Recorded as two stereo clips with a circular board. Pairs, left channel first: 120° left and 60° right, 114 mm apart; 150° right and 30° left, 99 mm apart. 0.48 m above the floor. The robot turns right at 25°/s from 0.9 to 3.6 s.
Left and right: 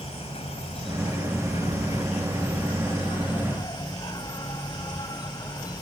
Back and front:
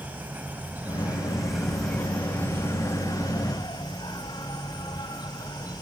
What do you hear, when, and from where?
0.0 s an insect: 100° left; by 5.8 s 170° left